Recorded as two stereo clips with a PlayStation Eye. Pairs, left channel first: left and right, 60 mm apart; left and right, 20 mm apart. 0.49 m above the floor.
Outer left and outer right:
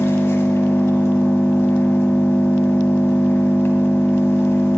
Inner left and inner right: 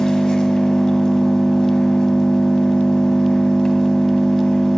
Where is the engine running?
45° left (ahead or behind), 2.5 m.